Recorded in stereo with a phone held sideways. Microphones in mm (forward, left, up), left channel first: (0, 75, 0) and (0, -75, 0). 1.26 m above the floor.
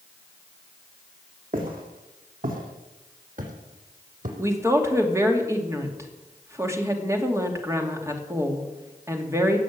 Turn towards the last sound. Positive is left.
turn(degrees=-20)  # may be behind; listen again after turning